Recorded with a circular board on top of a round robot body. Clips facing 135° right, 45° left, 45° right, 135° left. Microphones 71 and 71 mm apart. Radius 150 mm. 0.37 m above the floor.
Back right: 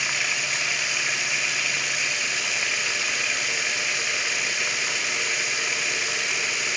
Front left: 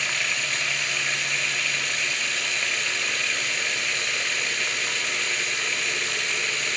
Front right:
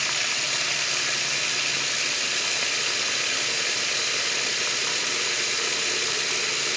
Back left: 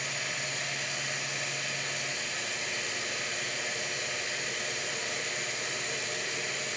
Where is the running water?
50° right, 1.0 m.